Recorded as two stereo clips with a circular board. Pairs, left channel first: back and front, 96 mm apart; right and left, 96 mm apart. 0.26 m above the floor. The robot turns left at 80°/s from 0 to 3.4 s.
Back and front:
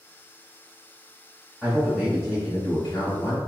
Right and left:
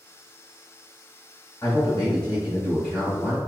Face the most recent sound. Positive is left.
turn(degrees=145)